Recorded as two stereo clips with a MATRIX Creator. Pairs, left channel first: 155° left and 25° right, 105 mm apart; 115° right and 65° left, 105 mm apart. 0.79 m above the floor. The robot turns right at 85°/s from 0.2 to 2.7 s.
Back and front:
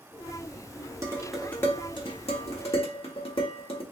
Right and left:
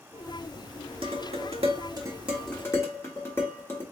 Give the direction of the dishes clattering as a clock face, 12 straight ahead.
11 o'clock.